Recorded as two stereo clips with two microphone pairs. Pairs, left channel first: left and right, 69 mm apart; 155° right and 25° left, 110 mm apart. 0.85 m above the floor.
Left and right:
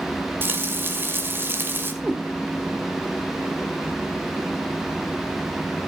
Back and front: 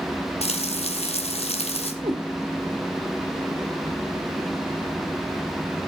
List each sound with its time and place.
0.4 s frying: 145° right, 2 m
2.0 s a cat meowing: 20° right, 2.5 m